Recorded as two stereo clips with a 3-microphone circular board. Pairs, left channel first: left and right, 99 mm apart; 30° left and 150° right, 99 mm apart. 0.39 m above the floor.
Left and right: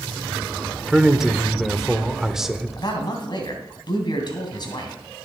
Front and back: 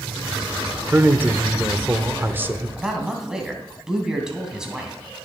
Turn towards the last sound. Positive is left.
turn(degrees=125)